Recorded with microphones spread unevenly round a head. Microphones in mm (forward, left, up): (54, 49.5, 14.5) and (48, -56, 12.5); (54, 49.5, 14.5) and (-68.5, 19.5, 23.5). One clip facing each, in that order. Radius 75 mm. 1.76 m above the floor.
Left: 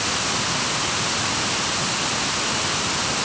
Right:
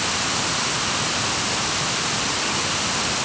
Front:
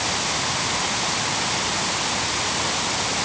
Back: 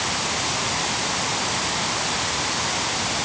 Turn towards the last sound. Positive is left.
No sound to turn to.